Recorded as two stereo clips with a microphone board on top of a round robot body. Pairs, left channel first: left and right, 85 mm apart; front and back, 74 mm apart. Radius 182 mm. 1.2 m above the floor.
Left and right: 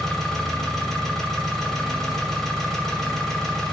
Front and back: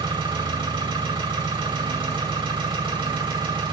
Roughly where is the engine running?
Behind.